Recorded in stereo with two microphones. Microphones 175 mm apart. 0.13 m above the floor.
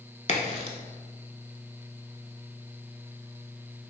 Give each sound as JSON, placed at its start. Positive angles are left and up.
{"t": 0.3, "sound": "a crack", "side_deg": 40, "distance_m": 0.5}